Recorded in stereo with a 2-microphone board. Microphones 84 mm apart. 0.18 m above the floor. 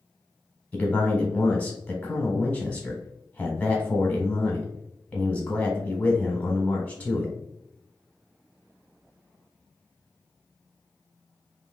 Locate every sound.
0.7 s a man speaking: 15° left (ahead or behind), 1.2 m